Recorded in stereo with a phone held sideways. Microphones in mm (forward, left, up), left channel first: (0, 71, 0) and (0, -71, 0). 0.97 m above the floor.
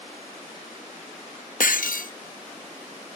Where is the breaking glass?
75° left (ahead or behind), 0.7 m.